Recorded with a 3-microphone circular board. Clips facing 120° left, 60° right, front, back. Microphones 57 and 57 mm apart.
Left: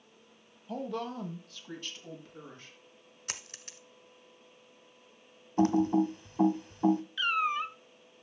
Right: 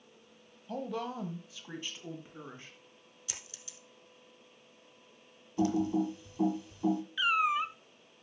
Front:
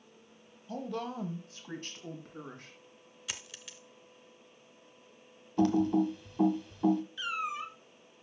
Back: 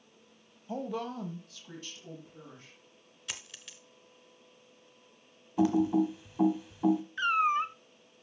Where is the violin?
No violin in this recording.